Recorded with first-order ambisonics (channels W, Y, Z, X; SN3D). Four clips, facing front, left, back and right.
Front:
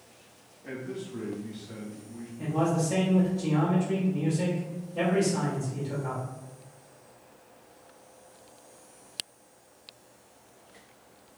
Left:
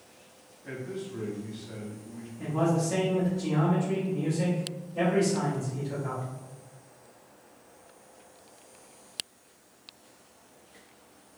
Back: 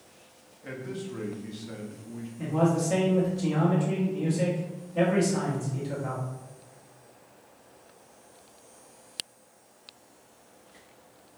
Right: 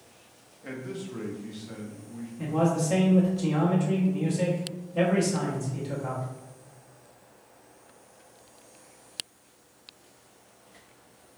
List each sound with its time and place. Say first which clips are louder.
0.6 s a man speaking: even, even; 125° right, 1.1 m; by 2.3 s 160° left, 0.8 m
2.4 s a man speaking: right 1 dB, back 2 dB; 115° right, 1.2 m